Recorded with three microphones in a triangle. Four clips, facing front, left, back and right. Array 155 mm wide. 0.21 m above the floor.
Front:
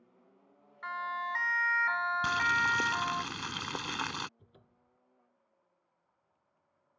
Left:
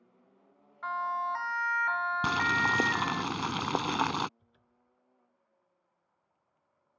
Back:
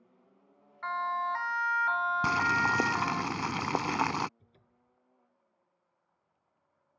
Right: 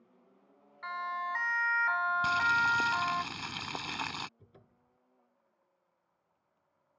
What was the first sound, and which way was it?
A siren, 135° left.